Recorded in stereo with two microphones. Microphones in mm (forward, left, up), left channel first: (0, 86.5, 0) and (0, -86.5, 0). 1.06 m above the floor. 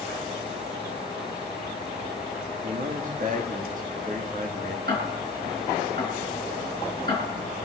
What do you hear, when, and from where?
2.6 s a man speaking: 50° right (ahead or behind), 1.9 m
4.9 s ticking: 75° right (ahead or behind), 4.5 m